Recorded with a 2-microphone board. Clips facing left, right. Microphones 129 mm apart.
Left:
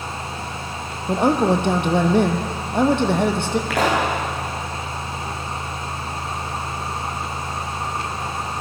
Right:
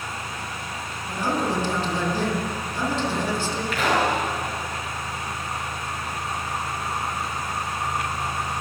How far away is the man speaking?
About 3 m.